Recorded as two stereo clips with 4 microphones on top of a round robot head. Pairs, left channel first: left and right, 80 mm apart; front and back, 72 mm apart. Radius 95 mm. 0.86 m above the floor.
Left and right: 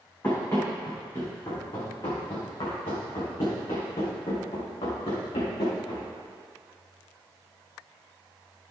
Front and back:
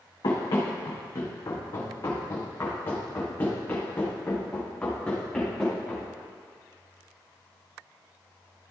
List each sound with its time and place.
0.2 s running footsteps: 25° left, 3.5 m; by 6.1 s 85° left, 4 m